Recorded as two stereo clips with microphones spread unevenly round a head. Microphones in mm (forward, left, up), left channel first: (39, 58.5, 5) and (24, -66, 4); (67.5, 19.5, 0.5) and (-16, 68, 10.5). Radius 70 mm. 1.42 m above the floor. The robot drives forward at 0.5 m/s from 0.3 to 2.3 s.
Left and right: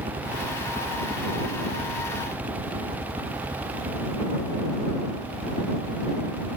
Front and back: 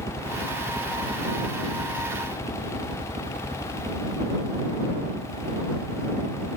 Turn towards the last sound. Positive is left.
turn(degrees=-170)